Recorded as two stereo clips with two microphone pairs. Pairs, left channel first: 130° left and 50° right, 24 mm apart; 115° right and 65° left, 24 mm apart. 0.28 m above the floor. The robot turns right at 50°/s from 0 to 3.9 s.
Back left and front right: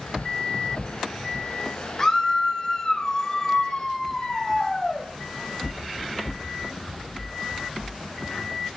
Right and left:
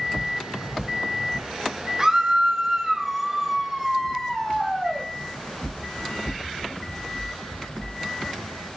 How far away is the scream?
About 1.2 m.